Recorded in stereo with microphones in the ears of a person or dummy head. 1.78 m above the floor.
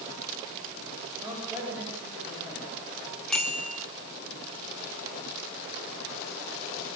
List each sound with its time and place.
1.2 s a man speaking: 10° right (ahead or behind), 8.5 m; by 3.2 s 5° right (ahead or behind), 8.5 m
3.3 s a bicycle bell: 5° left (ahead or behind), 2.5 m